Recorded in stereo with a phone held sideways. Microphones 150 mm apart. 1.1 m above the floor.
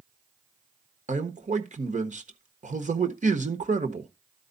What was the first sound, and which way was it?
A man speaking, 55° right (ahead or behind).